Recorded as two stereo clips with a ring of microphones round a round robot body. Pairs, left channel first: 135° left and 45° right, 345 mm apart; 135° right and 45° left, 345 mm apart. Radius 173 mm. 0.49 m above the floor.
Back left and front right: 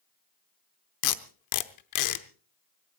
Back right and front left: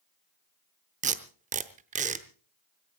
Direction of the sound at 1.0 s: 110° left.